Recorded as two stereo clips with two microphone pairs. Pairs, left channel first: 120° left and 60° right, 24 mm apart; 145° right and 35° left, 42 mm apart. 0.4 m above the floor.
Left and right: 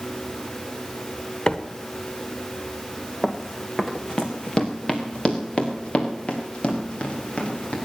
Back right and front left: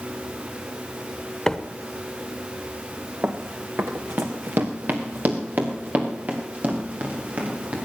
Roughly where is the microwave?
Behind left.